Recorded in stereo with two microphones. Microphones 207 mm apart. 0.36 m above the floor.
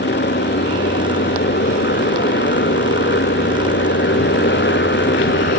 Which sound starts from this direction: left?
A motorcycle, at 0.0 s.